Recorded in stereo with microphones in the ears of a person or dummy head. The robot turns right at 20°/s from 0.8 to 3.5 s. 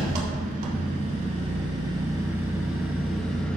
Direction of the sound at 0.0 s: 55° right.